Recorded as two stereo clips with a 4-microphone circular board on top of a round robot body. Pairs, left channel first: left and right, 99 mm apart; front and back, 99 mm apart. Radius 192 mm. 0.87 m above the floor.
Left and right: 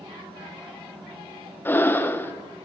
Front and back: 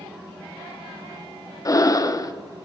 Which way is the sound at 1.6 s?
30° left.